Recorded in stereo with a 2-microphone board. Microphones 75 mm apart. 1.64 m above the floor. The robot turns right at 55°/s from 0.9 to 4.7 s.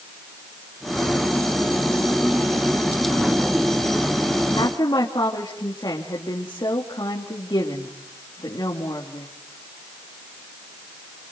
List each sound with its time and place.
4.6 s a woman speaking: 70° left (ahead or behind), 3 m; by 9.3 s 65° left (ahead or behind), 3 m